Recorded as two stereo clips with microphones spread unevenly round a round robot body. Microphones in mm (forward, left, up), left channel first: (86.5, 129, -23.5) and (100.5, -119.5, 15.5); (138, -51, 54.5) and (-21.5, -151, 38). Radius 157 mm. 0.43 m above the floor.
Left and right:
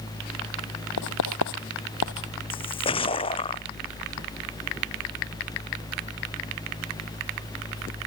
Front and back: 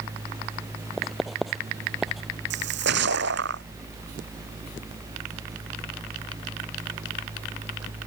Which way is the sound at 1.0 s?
120° left.